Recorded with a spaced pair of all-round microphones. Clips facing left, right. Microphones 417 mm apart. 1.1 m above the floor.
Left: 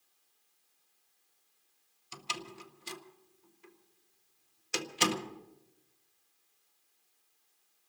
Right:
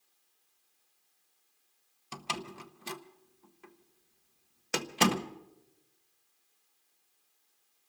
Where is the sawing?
No sawing in this recording.